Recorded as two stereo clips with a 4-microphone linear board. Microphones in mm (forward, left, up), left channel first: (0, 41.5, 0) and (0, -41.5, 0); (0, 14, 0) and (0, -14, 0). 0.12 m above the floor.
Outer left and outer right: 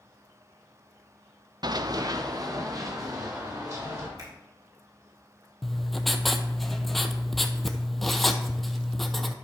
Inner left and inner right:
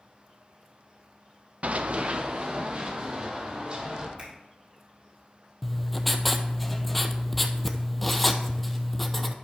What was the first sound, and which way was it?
Running footsteps, 55° right (ahead or behind).